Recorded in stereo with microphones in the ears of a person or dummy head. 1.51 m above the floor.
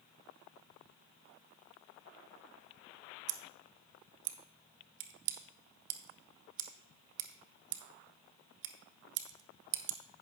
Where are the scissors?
65° right (ahead or behind), 1.0 m.